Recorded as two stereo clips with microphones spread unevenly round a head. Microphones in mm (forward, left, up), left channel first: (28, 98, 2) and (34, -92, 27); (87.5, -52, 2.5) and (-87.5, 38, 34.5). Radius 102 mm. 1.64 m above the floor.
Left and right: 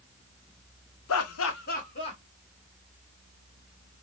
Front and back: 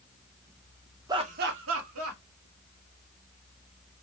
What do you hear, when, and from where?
1.1 s laughter: 85° left, 0.7 m; by 2.2 s 160° left, 1.3 m